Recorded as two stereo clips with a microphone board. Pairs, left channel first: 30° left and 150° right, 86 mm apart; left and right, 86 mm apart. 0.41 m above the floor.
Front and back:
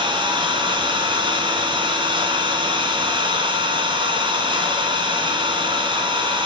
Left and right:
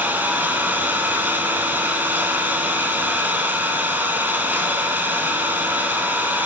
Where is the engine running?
160° right, 2.5 m.